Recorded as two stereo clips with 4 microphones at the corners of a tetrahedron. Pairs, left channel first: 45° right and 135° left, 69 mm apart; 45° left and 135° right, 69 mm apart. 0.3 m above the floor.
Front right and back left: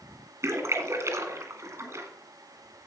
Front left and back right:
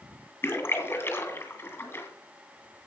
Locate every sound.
0.4 s a splash: 95° left, 2 m